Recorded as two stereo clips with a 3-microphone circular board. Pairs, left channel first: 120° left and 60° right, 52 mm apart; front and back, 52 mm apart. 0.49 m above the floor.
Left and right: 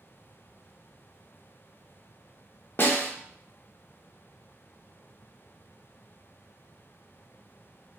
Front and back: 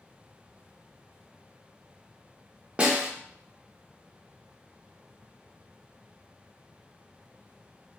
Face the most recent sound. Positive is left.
turn(degrees=130)